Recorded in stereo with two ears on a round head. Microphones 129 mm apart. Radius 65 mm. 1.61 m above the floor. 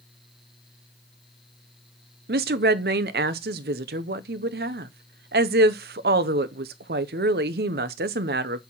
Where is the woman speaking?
80° right, 0.9 m.